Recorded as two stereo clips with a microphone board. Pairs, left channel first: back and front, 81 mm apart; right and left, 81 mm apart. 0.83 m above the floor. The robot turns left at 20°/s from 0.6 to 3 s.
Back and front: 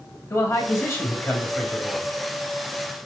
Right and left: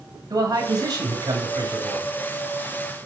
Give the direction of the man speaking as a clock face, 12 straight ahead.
8 o'clock.